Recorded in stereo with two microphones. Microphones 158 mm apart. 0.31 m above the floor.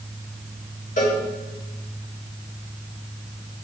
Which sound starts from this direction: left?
A cowbell, at 1.0 s.